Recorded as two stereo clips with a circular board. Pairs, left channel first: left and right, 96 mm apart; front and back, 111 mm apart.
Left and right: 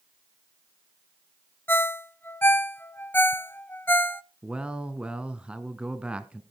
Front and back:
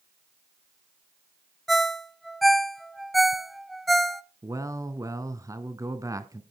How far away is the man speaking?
About 1.1 m.